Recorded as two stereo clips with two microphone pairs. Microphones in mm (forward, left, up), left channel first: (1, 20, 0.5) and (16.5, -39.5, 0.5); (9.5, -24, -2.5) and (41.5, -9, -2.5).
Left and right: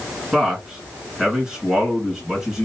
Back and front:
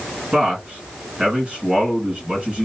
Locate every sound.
0.3 s a man speaking: 5° right, 2 m